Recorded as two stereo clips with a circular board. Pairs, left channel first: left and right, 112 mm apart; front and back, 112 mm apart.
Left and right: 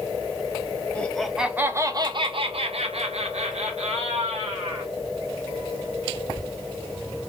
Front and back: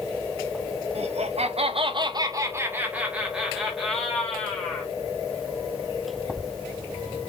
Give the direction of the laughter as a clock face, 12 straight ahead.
6 o'clock.